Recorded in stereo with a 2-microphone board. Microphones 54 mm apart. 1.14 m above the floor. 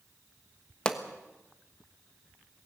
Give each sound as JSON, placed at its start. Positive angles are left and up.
{"t": 0.8, "sound": "a pop", "side_deg": 20, "distance_m": 1.4}